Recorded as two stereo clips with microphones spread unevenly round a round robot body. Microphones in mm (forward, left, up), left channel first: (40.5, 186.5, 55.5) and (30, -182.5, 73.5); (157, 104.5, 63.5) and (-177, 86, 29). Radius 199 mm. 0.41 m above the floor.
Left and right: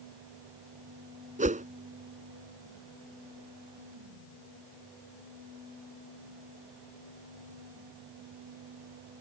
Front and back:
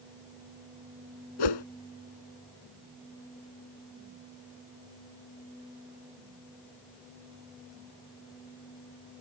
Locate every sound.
1.4 s a whoosh: 20° right